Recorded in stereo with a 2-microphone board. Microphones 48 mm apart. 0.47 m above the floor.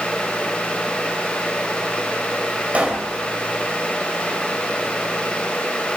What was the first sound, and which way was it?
A pop, 30° right (ahead or behind).